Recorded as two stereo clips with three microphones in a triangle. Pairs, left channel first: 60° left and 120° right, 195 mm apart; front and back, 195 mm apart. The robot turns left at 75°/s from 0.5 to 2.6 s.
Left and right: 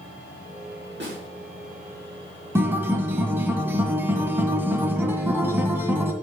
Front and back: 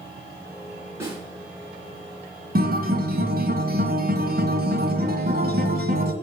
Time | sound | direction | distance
1.0 | a snare drum | 105° right | 4 m
2.5 | a guitar | 165° left | 1.4 m